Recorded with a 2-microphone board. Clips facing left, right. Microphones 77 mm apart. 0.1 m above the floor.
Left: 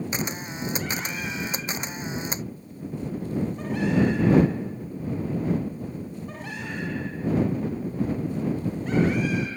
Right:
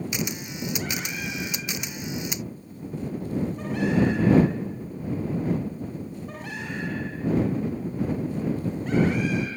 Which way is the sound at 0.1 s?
35° left (ahead or behind).